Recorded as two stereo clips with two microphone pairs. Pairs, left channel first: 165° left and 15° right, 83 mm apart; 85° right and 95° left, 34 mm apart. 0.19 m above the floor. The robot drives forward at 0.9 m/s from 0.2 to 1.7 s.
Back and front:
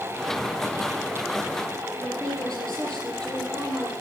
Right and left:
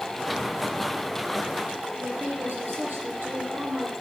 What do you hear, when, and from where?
2.0 s a woman speaking: 85° left, 7 m